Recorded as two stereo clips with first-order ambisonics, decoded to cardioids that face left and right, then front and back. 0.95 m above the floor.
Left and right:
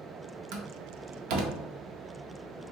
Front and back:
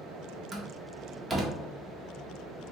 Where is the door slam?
100° right, 0.7 m.